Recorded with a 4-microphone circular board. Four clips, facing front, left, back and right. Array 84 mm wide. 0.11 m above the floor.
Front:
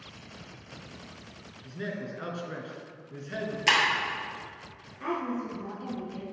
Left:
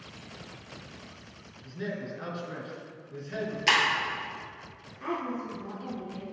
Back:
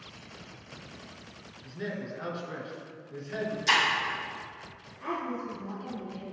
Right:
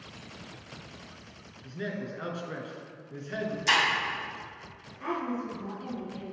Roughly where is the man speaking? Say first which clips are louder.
Even, even; ahead right.